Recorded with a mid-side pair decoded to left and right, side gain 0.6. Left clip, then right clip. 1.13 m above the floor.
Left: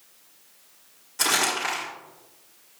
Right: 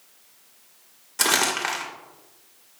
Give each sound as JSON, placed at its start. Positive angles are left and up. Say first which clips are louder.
{"t": 1.2, "sound": "crumpling", "louder": "right 1 dB", "azimuth_deg": -30, "distance_m": 3.0}